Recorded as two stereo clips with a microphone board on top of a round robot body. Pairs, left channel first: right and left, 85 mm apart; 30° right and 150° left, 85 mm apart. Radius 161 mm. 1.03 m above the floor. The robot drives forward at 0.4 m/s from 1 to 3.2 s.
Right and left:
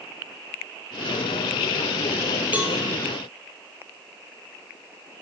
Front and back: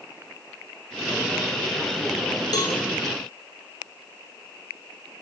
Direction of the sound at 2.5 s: 15° left.